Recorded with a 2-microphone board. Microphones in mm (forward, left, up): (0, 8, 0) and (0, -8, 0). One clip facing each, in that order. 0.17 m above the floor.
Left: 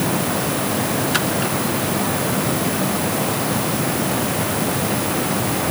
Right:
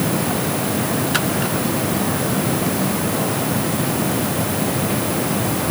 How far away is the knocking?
I don't hear knocking.